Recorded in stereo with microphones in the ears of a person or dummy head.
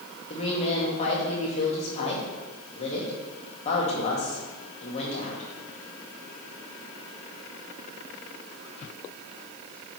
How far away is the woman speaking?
About 1.8 m.